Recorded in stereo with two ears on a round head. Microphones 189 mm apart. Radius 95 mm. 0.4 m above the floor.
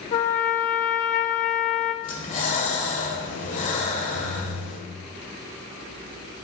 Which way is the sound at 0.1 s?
40° left (ahead or behind).